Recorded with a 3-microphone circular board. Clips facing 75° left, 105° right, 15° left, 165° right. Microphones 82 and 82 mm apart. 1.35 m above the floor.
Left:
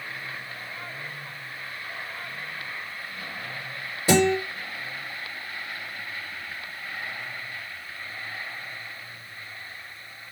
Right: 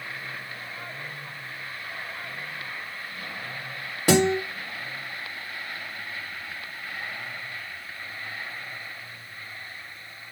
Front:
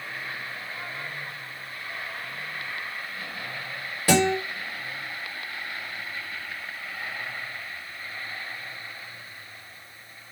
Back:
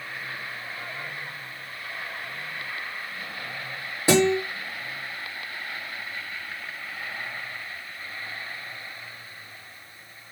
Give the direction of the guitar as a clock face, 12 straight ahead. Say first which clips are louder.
Even, back 2 dB; 3 o'clock.